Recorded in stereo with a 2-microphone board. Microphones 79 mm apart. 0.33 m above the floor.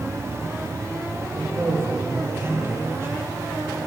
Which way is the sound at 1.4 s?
35° right (ahead or behind).